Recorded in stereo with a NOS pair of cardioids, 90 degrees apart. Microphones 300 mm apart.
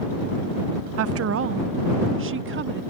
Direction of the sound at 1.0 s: 55° right.